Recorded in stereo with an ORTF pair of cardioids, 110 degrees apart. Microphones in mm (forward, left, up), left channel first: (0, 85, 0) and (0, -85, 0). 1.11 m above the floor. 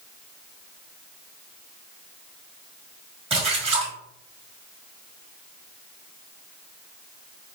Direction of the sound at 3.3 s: 35° right.